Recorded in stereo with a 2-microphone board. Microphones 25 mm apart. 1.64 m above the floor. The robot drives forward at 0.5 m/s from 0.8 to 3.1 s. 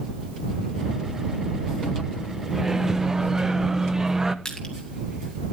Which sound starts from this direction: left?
Crushing, at 4.5 s.